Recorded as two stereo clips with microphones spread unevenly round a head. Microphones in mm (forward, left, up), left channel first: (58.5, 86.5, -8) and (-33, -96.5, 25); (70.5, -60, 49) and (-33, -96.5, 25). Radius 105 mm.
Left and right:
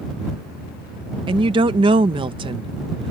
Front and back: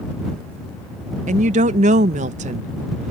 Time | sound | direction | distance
1.3 | a woman speaking | 175° left | ?